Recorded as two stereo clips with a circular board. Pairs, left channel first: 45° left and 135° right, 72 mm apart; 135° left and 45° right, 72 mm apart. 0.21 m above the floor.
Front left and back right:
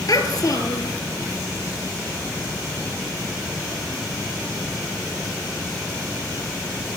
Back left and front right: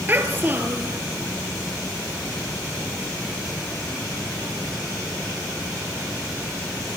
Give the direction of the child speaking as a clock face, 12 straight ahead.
11 o'clock.